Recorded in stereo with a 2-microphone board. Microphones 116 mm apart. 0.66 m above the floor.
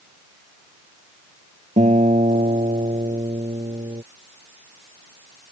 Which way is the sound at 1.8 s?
85° right.